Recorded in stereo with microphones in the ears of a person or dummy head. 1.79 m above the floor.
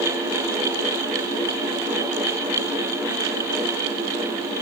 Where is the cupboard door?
No cupboard door in this recording.